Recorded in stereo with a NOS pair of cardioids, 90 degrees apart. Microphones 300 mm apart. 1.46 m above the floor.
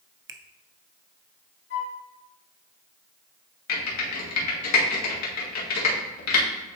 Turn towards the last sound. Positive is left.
turn(degrees=65)